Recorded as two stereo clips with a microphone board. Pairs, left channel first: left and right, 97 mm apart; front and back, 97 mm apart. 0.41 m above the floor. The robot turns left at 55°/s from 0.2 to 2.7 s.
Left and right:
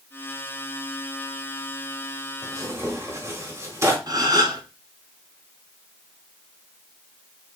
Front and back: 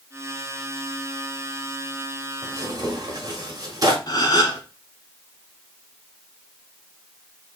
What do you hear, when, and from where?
2.4 s tearing paper: 130° right, 1.4 m; by 4.0 s 145° right, 1.4 m
4.1 s a gasp: 45° right, 0.8 m